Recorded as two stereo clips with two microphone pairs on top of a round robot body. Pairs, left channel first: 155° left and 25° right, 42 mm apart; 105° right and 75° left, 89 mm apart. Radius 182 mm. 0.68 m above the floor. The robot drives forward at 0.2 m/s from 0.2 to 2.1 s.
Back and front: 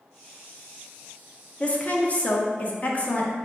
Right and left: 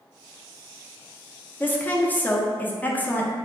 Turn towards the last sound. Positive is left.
turn(degrees=-165)